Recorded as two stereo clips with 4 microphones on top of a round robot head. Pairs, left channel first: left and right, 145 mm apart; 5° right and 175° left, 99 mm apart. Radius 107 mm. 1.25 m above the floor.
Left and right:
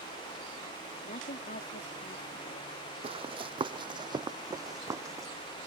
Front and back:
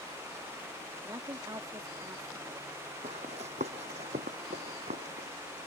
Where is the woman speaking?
120° left.